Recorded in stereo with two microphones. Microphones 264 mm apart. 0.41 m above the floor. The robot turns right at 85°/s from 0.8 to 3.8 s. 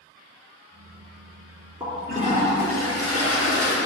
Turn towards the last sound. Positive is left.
turn(degrees=155)